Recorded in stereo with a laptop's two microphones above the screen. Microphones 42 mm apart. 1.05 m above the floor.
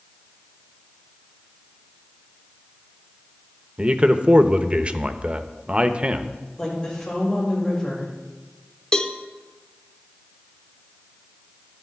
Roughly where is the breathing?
No breathing in this recording.